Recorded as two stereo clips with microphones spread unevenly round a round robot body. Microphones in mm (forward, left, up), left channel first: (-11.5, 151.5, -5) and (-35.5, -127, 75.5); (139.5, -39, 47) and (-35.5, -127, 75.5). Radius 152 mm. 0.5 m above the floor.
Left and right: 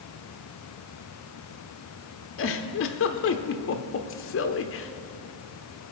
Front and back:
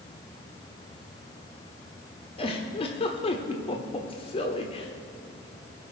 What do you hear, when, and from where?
2.4 s a giggle: 80° left, 0.8 m